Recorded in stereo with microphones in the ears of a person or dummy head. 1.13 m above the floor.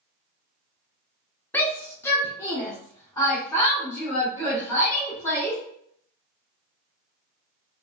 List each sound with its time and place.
1.5 s a shout: 10° left (ahead or behind), 0.5 m; by 5.6 s 20° left (ahead or behind), 3 m